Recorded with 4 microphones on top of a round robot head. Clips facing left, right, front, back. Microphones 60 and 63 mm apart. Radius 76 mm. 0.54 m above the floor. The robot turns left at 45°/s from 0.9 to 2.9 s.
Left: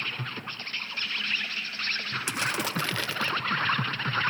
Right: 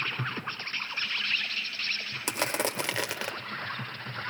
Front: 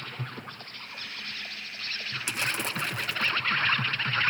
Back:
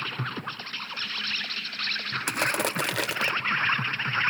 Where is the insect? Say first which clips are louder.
Right 2 dB, back 6 dB; 165° right, 1.2 m; by 4.3 s 105° left, 1.2 m.